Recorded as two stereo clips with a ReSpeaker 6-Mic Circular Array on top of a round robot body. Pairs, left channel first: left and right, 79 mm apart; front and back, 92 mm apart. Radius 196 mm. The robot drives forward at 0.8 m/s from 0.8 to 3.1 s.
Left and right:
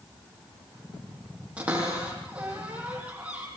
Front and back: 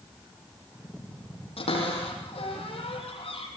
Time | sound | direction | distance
1.6 | a cupboard door | 15° right | 9 m